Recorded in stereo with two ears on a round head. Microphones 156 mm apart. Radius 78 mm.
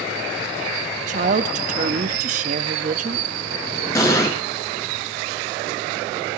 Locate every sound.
1.1 s a woman speaking: 45° right (ahead or behind), 1.0 m
4.0 s an explosion: 20° left (ahead or behind), 4 m